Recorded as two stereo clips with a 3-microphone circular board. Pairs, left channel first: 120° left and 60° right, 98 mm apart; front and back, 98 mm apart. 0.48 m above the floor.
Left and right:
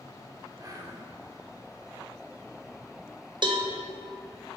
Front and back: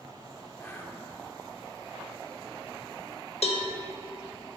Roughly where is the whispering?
Ahead right.